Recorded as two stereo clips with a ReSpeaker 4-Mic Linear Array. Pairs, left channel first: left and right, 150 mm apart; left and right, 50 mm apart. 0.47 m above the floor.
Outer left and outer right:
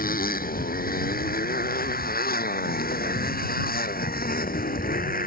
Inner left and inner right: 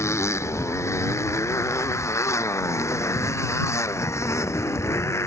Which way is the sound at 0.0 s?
75° left (ahead or behind).